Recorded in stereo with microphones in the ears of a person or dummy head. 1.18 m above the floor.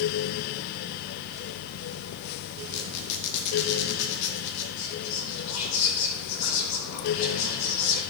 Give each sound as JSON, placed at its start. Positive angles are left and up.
{"t": 2.7, "sound": "a squeak", "side_deg": 65, "distance_m": 1.6}
{"t": 4.8, "sound": "whispering", "side_deg": 70, "distance_m": 2.5}